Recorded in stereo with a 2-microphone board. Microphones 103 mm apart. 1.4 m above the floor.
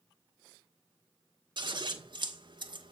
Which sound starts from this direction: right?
Scissors, at 1.6 s.